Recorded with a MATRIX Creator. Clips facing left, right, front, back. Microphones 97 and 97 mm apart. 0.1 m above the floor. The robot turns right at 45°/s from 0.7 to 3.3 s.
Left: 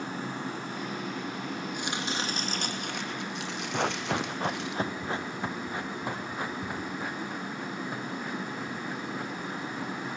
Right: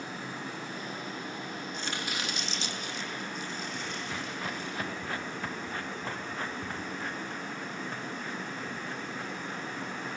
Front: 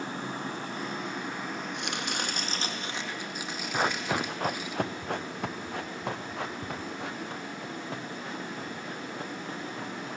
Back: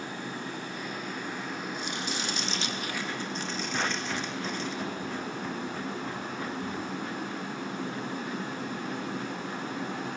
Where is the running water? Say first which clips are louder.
Left 4 dB, front 2 dB; 50° left, 7.5 m; by 10.2 s 165° left, 7.5 m.